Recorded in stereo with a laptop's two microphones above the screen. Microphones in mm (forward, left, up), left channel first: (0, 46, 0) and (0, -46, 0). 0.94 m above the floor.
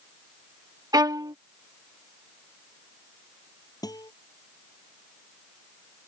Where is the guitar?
45° left (ahead or behind).